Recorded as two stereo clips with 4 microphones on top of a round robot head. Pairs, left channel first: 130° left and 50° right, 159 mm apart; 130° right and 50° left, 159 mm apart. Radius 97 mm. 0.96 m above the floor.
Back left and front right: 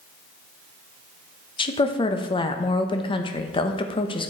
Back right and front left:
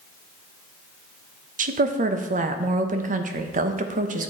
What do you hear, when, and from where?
1.6 s a woman speaking: 75° left, 1.0 m